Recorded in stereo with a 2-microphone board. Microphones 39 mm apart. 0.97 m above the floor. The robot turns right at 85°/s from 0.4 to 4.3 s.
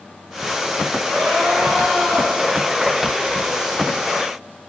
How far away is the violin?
I don't hear a violin.